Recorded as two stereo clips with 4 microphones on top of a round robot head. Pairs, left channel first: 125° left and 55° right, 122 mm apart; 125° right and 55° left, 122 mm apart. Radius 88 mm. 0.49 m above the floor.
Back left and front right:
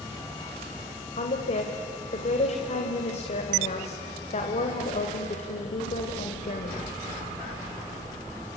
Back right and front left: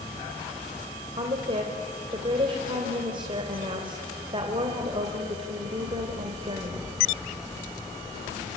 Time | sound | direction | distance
1.2 | a woman speaking | 100° left | 2.5 m